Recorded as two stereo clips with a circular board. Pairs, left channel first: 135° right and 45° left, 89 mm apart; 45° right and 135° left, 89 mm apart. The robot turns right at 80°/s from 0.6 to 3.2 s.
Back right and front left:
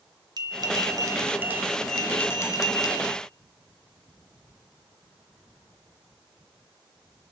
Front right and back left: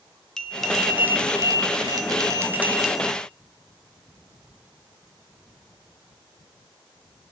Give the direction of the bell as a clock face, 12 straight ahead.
11 o'clock.